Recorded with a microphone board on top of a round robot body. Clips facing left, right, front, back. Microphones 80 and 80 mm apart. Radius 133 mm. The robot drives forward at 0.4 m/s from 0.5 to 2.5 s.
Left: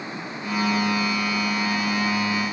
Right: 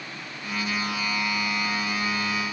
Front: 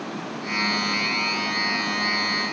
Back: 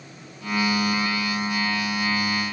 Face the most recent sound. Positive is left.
turn(degrees=20)